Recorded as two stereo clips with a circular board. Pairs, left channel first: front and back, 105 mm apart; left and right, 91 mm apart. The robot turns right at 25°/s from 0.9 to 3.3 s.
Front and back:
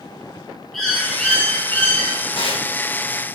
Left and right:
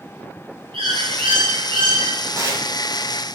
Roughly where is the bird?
Right.